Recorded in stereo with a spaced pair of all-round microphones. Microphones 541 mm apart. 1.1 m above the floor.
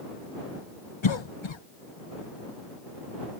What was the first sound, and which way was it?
A cough, 55° left (ahead or behind).